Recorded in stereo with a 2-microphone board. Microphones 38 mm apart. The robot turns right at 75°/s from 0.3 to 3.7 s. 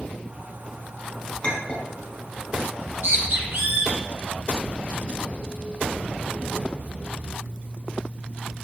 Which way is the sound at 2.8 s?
45° right (ahead or behind).